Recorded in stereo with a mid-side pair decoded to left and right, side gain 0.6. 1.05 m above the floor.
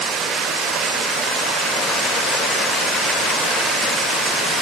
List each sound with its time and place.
Only background noise.